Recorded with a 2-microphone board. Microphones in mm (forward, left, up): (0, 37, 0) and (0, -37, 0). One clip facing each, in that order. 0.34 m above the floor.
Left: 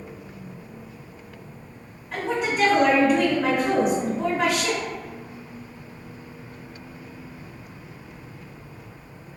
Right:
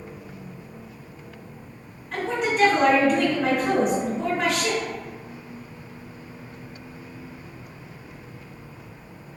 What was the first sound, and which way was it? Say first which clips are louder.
A woman speaking: right 1 dB; 5° left (ahead or behind).